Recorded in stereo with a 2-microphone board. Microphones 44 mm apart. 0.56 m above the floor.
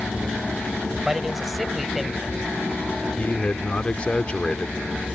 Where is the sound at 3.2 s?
25° left (ahead or behind).